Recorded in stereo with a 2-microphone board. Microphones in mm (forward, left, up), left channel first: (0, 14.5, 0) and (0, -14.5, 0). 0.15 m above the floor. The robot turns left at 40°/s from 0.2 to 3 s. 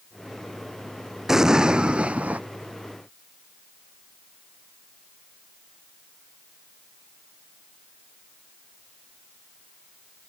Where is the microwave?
I don't hear a microwave.